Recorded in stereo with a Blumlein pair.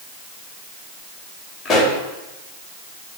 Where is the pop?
15° left, 2.5 m.